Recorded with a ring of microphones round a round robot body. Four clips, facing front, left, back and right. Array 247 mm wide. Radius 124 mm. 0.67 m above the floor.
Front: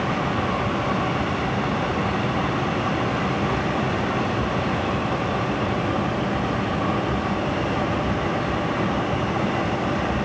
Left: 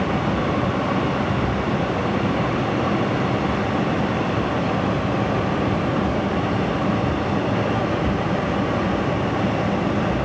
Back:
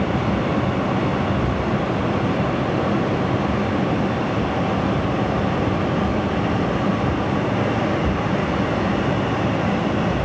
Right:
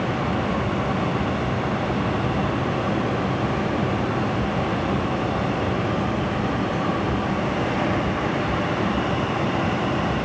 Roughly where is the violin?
No violin in this recording.